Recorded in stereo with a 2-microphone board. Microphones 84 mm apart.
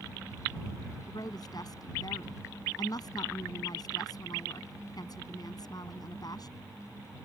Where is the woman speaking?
50° left (ahead or behind).